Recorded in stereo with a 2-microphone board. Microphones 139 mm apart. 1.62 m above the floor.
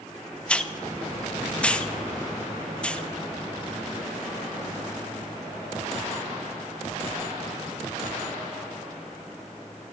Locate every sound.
0.5 s a hiss: 10° left (ahead or behind), 0.8 m